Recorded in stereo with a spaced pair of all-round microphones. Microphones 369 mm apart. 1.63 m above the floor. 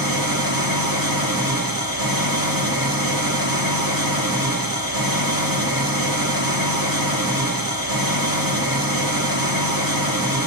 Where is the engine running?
65° right (ahead or behind), 1.4 m.